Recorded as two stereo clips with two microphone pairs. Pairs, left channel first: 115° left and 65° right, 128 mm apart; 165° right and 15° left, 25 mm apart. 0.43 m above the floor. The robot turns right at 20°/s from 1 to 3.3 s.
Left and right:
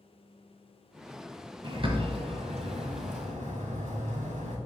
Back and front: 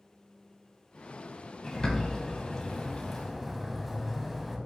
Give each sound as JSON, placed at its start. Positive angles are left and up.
{"t": 1.6, "sound": "a bird", "azimuth_deg": -115, "distance_m": 1.3}